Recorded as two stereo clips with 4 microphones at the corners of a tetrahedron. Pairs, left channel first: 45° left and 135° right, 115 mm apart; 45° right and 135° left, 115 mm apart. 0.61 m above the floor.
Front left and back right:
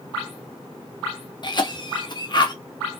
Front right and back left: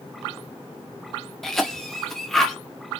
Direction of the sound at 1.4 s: 40° left.